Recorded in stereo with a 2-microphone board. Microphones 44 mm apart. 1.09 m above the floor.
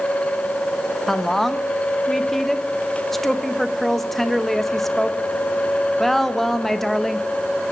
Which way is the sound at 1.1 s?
5° left (ahead or behind).